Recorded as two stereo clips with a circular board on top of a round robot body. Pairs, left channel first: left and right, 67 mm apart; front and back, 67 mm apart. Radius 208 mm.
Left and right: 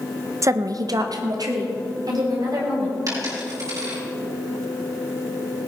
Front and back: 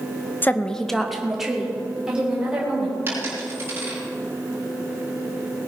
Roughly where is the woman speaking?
Ahead right.